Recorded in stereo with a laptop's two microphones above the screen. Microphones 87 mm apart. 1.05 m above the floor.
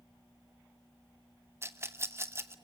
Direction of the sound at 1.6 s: 30° right (ahead or behind).